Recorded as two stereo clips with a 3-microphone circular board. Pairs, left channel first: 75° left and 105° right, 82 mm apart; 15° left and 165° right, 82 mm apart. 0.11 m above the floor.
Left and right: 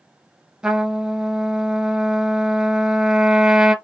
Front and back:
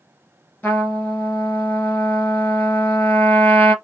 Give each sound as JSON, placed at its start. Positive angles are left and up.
{"t": 0.6, "sound": "a trumpet", "azimuth_deg": -35, "distance_m": 1.7}